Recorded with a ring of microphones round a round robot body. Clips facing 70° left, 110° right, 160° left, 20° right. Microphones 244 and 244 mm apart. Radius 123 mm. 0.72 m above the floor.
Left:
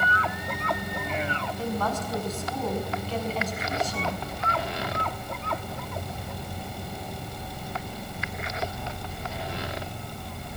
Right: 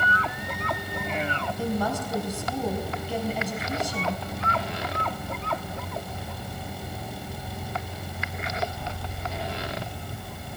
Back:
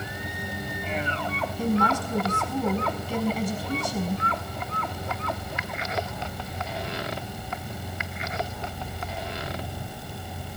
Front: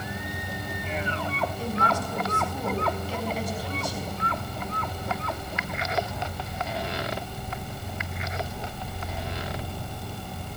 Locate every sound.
1.6 s a woman speaking: 170° left, 6 m